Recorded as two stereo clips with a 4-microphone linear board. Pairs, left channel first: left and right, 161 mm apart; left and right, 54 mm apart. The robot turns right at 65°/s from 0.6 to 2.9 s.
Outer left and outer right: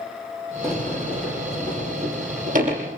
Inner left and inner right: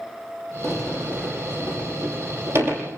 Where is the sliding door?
5° left (ahead or behind), 7 m; by 2.8 s 40° right (ahead or behind), 7 m.